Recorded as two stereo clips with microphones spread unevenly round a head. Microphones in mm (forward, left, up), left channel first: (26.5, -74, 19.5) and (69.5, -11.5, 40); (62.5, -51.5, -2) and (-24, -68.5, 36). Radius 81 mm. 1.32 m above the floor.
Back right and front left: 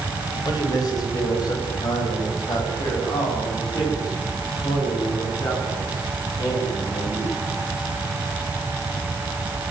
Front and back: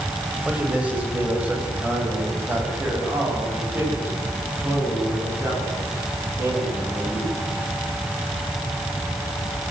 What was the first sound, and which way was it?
A man speaking, 90° right.